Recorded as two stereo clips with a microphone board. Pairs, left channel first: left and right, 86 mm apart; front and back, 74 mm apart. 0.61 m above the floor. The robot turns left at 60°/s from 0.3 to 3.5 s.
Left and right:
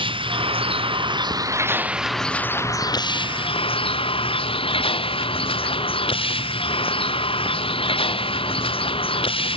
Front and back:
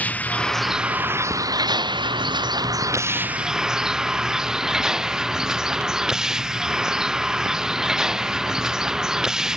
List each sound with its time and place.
0.0 s a vehicle: 70° right; by 9.6 s 95° left